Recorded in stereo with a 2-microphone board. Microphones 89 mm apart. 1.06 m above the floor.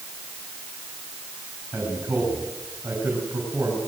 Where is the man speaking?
25° right (ahead or behind), 8 m.